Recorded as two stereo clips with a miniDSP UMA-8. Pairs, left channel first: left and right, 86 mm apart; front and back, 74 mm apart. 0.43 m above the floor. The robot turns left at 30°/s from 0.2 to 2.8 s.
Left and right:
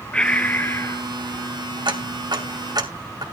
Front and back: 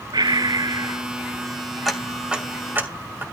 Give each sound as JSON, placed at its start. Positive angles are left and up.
{"t": 0.1, "sound": "breathing", "azimuth_deg": 170, "distance_m": 0.8}
{"t": 1.9, "sound": "ticking", "azimuth_deg": -90, "distance_m": 2.5}